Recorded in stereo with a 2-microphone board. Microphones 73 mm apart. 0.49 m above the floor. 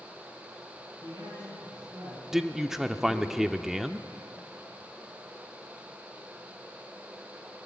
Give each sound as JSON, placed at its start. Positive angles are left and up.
{"t": 1.0, "sound": "a man speaking", "side_deg": -70, "distance_m": 7.5}
{"t": 2.3, "sound": "a man speaking", "side_deg": -5, "distance_m": 0.7}